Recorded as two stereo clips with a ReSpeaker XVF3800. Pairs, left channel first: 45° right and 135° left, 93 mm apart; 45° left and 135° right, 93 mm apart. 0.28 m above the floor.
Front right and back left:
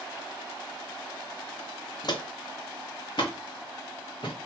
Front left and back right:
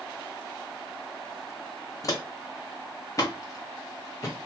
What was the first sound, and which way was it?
Footsteps, 5° right.